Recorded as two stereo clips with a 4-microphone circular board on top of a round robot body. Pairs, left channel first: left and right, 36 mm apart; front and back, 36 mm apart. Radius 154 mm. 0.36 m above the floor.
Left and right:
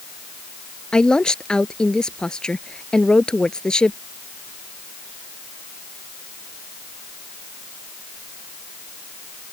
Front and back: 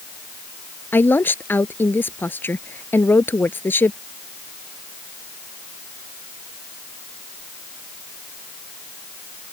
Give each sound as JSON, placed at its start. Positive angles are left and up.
{"t": 0.9, "sound": "a woman speaking", "azimuth_deg": 20}